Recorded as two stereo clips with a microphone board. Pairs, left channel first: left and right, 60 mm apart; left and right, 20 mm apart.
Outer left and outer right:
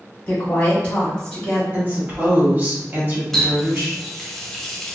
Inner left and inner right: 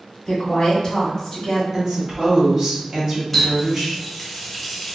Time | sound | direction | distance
0.3 | a woman speaking | 20° left (ahead or behind) | 1.4 m
1.7 | a woman speaking | 35° right (ahead or behind) | 1.4 m
3.3 | a running tap | 5° left (ahead or behind) | 0.6 m